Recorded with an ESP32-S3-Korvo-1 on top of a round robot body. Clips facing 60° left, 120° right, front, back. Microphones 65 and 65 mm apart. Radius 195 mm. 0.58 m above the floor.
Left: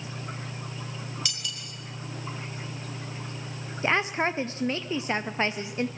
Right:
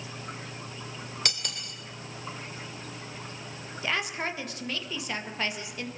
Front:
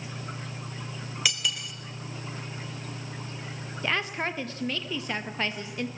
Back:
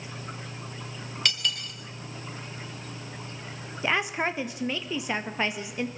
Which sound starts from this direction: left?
A woman speaking, at 3.8 s.